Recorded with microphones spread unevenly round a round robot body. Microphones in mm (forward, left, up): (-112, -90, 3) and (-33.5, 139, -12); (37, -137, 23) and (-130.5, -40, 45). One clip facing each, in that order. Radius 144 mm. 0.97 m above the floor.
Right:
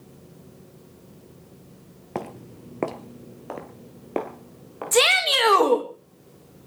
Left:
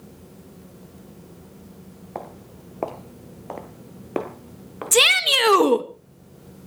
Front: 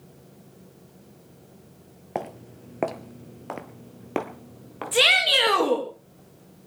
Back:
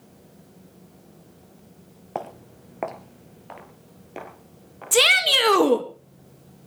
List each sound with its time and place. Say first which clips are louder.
2.1 s footsteps: right 5 dB, front 1 dB; 105° right, 1.2 m; by 5.6 s 5° left, 2.5 m
4.9 s a shout: even, back 2 dB; 105° left, 1.5 m